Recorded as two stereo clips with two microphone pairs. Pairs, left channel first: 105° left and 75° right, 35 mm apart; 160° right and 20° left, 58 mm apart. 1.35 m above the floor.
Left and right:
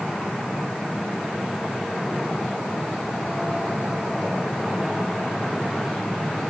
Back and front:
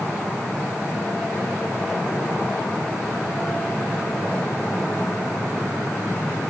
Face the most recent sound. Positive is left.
No sound to turn to.